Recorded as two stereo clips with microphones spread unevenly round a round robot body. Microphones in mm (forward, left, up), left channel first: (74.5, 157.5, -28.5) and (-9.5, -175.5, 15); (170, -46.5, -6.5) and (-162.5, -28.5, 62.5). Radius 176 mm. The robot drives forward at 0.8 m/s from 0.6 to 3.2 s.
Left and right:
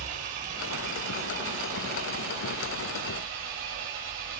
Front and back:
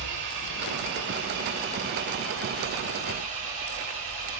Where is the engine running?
155° right, 6 m; by 4.4 s 160° right, 8 m.